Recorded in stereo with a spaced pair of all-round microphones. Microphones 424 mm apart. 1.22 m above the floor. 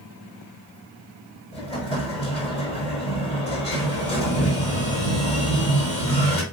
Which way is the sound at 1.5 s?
15° left (ahead or behind).